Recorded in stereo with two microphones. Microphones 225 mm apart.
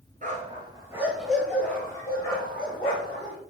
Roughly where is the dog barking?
Right.